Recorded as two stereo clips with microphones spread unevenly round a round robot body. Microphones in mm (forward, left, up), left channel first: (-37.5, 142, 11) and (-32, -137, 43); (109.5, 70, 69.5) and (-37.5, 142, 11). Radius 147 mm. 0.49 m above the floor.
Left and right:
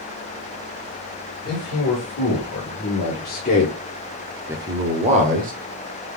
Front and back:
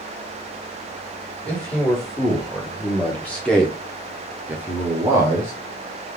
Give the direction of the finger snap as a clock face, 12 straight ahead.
No finger snap in this recording.